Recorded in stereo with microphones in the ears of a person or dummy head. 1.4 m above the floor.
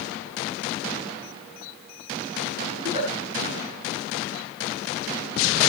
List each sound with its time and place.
2.8 s a giggle: 30° right (ahead or behind), 5.5 m